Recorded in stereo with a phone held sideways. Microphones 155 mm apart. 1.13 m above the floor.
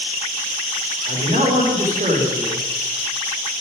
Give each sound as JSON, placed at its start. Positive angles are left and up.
{"t": 1.1, "sound": "a man speaking", "side_deg": -65, "distance_m": 3.0}